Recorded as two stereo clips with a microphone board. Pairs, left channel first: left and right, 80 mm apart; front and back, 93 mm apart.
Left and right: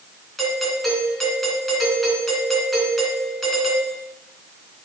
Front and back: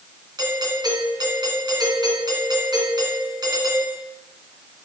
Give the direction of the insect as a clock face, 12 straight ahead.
I don't hear an insect.